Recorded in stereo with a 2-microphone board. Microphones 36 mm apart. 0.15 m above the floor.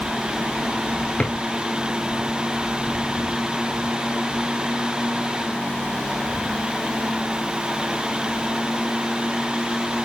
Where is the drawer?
30° left (ahead or behind), 1.2 m.